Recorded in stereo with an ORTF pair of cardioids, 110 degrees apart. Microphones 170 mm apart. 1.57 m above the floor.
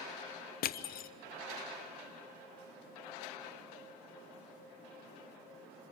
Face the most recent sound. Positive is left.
turn(degrees=65)